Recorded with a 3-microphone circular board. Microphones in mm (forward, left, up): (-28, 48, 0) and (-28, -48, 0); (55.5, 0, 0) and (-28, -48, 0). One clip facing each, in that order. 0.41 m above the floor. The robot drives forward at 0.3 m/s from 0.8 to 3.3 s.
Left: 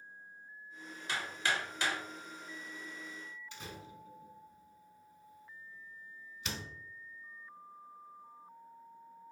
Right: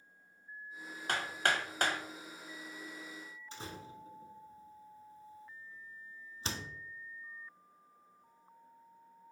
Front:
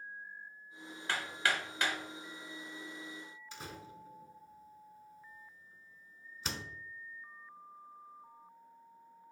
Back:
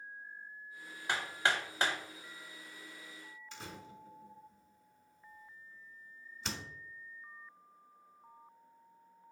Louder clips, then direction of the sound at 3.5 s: Right 5 dB, front 1 dB; 55° right.